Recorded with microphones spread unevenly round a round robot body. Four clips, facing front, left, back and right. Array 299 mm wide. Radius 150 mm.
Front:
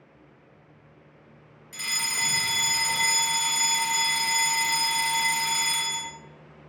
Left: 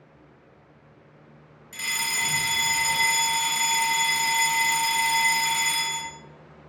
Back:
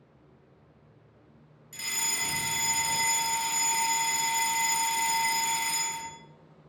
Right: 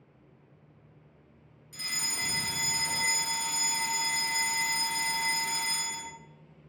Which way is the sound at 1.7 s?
80° left.